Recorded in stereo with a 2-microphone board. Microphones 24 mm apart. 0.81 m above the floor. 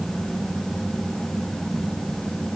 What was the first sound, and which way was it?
Only background noise.